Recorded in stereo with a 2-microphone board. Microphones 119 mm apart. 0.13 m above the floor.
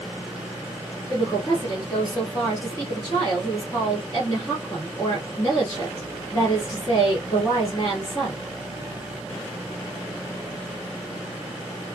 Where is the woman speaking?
25° left (ahead or behind), 1.5 m.